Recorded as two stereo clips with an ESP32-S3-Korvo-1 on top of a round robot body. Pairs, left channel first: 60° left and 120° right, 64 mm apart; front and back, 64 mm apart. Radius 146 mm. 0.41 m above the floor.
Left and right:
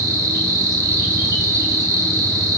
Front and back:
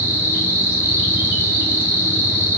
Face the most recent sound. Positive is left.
turn(degrees=-120)